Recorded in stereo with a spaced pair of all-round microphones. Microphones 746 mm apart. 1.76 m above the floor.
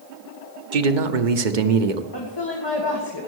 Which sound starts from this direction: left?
A woman speaking, at 2.1 s.